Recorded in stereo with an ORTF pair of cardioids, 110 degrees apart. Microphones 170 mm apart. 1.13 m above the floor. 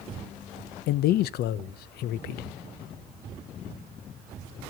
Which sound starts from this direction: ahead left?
A man speaking, at 0.9 s.